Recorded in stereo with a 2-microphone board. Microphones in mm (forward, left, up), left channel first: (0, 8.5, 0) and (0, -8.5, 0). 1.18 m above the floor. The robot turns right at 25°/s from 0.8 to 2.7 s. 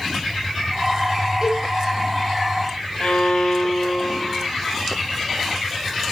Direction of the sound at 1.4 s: 25° right (ahead or behind).